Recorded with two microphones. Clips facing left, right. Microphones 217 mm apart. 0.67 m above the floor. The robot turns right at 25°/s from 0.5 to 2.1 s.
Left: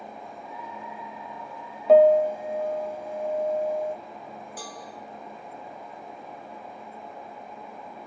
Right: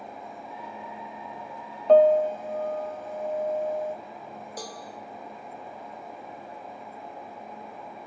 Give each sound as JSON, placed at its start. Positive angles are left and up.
{"t": 1.9, "sound": "a piano", "side_deg": 5, "distance_m": 0.6}
{"t": 4.6, "sound": "a cowbell", "side_deg": -40, "distance_m": 3.0}